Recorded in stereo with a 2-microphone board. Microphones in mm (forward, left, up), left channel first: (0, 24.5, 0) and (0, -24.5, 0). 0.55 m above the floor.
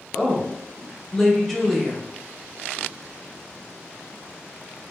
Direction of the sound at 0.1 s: 5° left (ahead or behind).